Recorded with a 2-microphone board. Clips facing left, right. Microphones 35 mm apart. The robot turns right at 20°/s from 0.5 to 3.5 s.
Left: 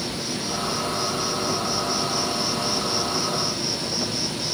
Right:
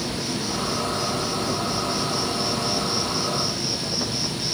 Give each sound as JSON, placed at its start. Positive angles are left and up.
{"t": 0.0, "sound": "an insect", "azimuth_deg": -55, "distance_m": 2.5}